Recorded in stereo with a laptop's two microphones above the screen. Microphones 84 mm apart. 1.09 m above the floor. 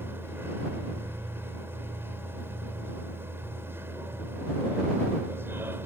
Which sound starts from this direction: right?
A machine running, at 0.0 s.